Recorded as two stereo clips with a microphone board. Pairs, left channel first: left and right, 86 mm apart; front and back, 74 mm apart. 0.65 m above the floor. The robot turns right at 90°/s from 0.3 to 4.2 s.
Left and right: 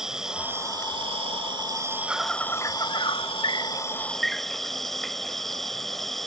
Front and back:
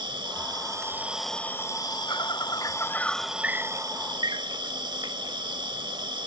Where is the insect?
175° right; by 6.3 s 175° left.